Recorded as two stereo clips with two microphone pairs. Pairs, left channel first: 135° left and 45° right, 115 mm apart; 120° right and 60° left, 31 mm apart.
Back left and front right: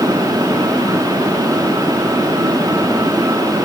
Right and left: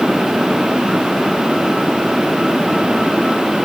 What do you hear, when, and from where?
Only background noise.